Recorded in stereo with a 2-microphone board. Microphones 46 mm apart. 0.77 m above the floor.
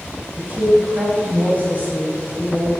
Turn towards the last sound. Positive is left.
turn(degrees=-35)  # may be behind; listen again after turning